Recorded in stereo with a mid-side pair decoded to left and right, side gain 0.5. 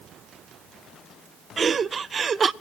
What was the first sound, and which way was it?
Laughter, 40° right.